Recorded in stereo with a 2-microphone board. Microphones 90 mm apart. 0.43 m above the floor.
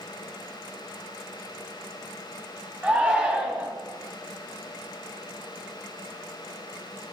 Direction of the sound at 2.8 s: 15° right (ahead or behind).